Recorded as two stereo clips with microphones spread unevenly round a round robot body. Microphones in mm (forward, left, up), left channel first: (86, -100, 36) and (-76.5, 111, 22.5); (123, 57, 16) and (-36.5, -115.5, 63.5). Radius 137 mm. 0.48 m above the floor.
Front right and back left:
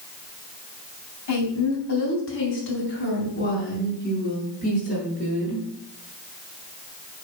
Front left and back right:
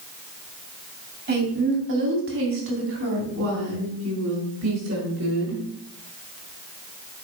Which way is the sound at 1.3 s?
85° right.